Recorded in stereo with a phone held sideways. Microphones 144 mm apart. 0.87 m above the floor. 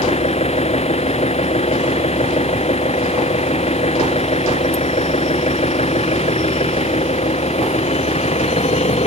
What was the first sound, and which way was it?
An engine running, 45° left (ahead or behind).